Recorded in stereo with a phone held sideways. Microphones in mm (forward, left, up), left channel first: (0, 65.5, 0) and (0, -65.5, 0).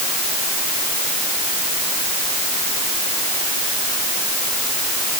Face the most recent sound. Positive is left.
No sound to turn to.